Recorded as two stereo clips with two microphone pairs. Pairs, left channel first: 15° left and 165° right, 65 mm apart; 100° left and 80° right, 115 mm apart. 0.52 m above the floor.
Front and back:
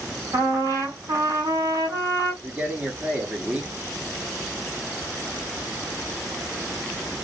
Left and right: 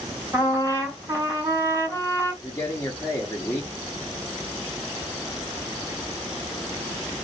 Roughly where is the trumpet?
Behind right.